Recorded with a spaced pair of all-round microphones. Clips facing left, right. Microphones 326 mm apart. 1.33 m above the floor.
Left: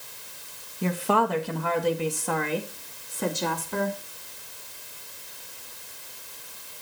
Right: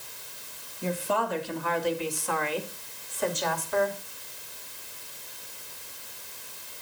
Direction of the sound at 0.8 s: 75° left (ahead or behind).